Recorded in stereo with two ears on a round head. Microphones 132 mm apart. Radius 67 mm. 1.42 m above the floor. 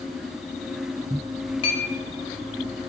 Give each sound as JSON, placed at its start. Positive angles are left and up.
{"t": 1.6, "sound": "a clink", "side_deg": 35, "distance_m": 0.5}